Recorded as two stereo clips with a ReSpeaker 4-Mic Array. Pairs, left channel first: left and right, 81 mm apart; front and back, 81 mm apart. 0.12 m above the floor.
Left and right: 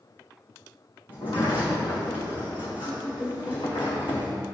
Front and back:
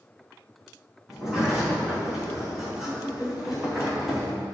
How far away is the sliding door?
About 3 m.